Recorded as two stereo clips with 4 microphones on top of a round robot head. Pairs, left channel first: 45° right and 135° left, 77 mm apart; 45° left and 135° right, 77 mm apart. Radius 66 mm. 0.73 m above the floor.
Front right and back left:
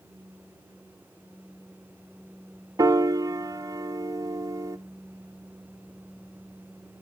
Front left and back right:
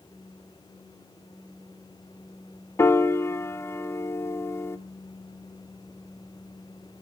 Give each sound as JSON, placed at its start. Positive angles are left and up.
{"t": 2.8, "sound": "a piano", "azimuth_deg": 95, "distance_m": 0.8}